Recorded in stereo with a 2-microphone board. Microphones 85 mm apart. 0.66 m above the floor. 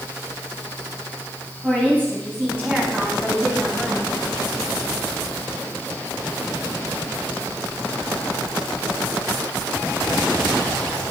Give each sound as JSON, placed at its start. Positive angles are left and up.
{"t": 1.6, "sound": "a woman speaking", "side_deg": -25, "distance_m": 5.0}